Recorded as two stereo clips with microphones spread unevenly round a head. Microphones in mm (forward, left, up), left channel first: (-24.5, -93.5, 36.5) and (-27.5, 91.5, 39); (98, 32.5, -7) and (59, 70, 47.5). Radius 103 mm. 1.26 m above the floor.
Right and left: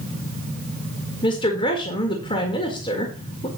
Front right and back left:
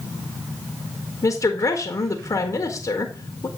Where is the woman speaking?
20° right, 1.6 m.